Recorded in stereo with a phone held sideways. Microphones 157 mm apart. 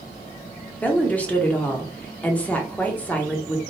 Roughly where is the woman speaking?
Centre.